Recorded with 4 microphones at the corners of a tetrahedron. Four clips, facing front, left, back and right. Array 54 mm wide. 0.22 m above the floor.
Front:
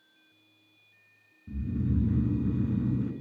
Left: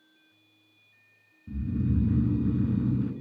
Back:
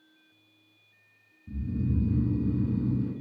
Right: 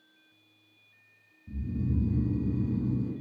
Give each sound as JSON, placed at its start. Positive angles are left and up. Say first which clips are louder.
{"t": 1.5, "sound": "snoring", "louder": "left 4 dB, even", "azimuth_deg": 65, "distance_m": 1.1}